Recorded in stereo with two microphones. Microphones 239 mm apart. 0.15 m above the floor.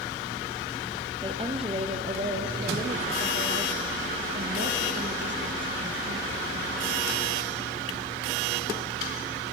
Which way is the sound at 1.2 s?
20° right (ahead or behind).